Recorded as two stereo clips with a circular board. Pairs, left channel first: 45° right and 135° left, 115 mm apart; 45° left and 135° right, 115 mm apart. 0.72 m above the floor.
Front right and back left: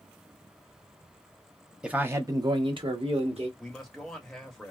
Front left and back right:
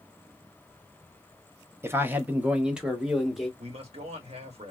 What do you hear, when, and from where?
1.8 s a man speaking: 155° right, 0.6 m; by 3.5 s 135° left, 1.1 m
3.6 s a man speaking: 130° right, 1.2 m